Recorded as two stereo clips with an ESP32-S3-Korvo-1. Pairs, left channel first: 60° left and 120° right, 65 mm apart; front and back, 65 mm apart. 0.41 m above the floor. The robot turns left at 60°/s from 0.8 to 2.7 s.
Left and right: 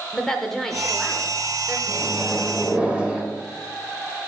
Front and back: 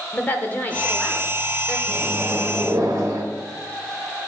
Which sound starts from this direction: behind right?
A microwave, at 1.9 s.